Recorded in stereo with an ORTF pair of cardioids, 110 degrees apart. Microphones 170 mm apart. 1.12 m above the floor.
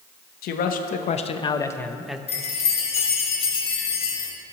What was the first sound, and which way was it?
A man speaking, 65° left.